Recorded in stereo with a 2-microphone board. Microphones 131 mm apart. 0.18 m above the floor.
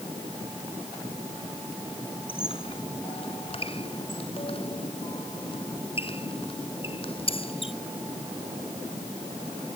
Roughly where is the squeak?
Left.